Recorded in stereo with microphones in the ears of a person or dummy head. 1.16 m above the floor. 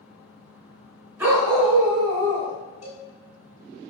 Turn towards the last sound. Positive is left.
turn(degrees=35)  # may be behind; listen again after turning